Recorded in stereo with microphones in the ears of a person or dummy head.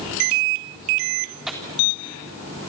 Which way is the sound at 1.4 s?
Centre (ahead or behind).